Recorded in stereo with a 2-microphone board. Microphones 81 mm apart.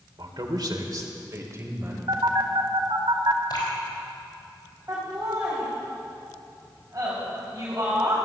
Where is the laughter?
35° right (ahead or behind), 4 m.